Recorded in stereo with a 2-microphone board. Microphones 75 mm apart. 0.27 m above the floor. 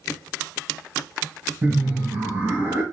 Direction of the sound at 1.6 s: 25° right (ahead or behind).